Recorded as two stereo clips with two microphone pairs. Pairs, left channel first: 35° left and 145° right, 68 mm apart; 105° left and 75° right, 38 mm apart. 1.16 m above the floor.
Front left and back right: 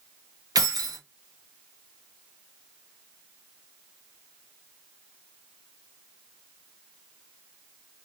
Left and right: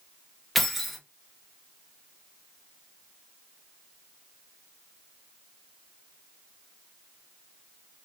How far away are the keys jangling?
About 0.6 m.